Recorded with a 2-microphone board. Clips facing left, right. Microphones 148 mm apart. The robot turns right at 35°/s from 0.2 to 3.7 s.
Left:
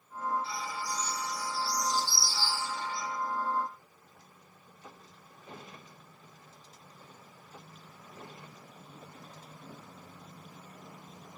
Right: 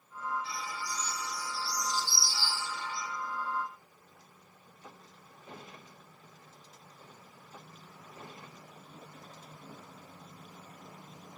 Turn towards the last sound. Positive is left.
turn(degrees=150)